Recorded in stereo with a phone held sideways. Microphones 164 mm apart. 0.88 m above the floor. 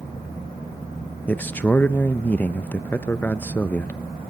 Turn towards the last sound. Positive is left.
turn(degrees=10)  # may be behind; listen again after turning